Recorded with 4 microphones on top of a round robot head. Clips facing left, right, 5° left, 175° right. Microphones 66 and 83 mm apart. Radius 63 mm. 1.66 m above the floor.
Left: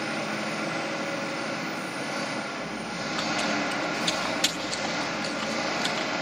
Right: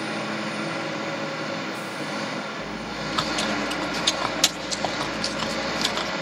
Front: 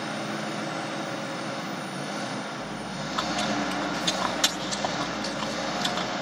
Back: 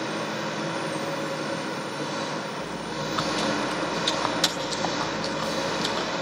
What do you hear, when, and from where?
0.0 s an engine running: 165° right, 2 m
2.6 s chewing: 95° right, 0.8 m